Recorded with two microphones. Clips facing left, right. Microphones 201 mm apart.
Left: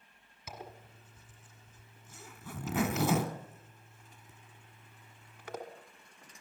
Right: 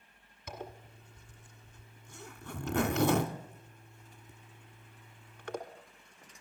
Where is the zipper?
5° left (ahead or behind), 1.2 m.